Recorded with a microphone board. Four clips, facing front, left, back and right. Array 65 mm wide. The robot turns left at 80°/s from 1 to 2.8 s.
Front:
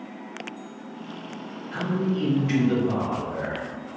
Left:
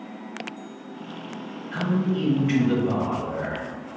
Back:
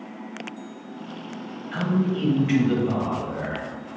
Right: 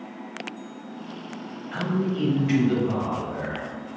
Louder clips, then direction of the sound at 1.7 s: Left 1 dB, back 2 dB; 145° right.